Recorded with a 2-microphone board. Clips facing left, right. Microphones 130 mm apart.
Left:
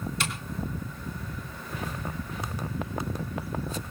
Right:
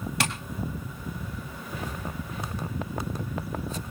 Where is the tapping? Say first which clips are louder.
Right 6 dB; 70° right (ahead or behind), 2 m.